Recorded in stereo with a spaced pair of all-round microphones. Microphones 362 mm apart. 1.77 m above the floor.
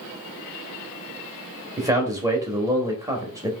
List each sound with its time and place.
1.8 s a man speaking: 10° right (ahead or behind), 0.6 m